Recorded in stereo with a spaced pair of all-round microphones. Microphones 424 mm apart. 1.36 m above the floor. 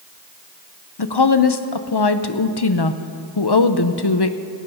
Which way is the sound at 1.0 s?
60° left (ahead or behind).